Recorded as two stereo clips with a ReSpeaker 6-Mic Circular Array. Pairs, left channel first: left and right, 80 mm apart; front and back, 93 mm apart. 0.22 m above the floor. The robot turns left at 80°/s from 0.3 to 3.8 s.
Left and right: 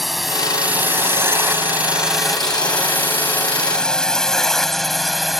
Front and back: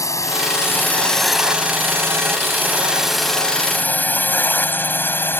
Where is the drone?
Straight ahead; by 5.4 s 5° right.